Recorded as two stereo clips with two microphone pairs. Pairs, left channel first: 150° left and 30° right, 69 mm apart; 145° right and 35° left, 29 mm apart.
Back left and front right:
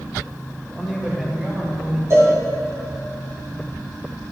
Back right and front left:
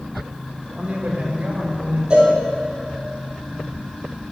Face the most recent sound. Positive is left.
turn(degrees=-10)